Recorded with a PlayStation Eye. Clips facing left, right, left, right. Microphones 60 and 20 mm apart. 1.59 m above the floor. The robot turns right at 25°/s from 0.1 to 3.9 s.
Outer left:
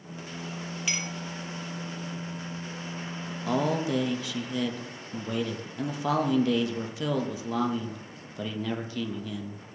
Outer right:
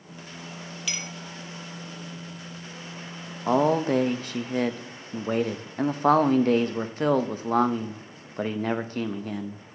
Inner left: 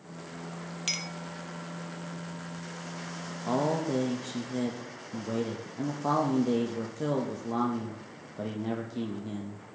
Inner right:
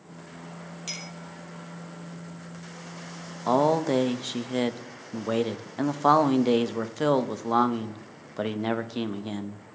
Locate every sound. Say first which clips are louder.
0.9 s a clink: outer left 2 dB, inner left 4 dB; 25° left (ahead or behind), 0.9 m; by 1.1 s 30° left (ahead or behind), 0.9 m
3.5 s a man speaking: outer right 6 dB, inner right 7 dB; 35° right (ahead or behind), 0.6 m; by 9.6 s 45° right (ahead or behind), 0.6 m